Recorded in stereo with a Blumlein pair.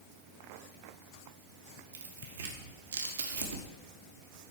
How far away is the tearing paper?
About 1.6 m.